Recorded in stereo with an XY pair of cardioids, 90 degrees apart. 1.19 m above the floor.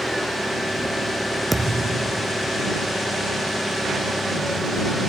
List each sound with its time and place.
0.0 s an engine running: 5° left
1.5 s a thud: 10° right